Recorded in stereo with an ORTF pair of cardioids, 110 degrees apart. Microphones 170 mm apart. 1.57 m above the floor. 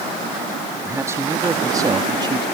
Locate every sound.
0.8 s a man speaking: 15° right; by 2.5 s 25° right